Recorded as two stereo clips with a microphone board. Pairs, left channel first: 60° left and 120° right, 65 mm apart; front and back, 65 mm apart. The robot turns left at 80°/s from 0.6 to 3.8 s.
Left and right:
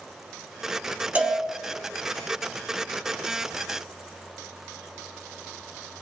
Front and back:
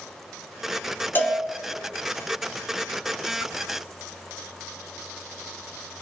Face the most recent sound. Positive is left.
turn(degrees=95)